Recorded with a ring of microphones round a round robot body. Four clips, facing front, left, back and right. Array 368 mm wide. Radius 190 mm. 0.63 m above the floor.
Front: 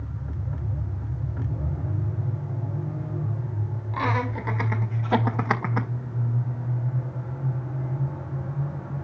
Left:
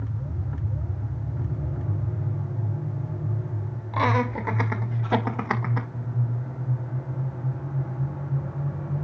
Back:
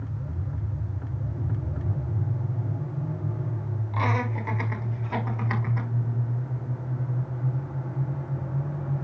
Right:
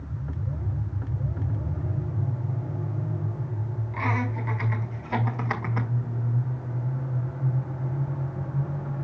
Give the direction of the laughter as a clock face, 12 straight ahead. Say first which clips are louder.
Left 6 dB, front 1 dB; 9 o'clock.